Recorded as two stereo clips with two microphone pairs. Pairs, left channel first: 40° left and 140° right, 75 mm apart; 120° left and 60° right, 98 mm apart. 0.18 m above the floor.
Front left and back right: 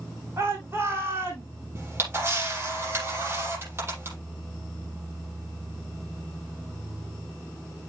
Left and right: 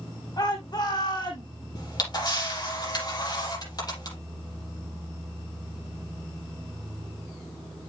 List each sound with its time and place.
0.4 s a shout: 160° left, 7.5 m
1.8 s a camera shutter: 160° left, 6.5 m